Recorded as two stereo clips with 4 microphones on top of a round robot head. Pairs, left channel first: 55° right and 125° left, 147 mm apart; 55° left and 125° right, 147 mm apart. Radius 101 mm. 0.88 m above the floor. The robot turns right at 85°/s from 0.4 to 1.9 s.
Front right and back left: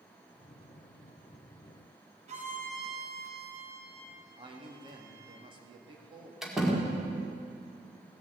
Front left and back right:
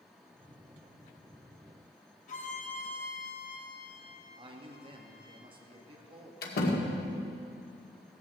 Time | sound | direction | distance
2.3 | a violin | 85° left | 2.5 m
4.4 | a man speaking | straight behind | 2 m
6.4 | a door slam | 40° left | 2.0 m